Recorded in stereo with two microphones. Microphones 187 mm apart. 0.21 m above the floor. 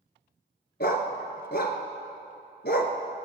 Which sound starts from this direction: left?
A dog barking, at 0.8 s.